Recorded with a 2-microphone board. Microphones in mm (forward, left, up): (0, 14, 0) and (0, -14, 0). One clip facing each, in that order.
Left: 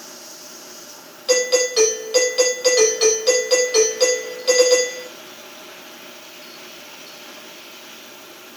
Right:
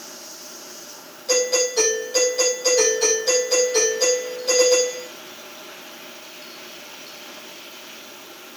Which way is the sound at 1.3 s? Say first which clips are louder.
Left 3 dB; 75° left (ahead or behind).